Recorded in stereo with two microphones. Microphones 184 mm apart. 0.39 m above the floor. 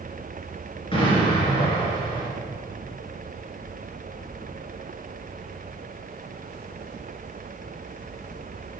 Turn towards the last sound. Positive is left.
turn(degrees=30)  # may be behind; listen again after turning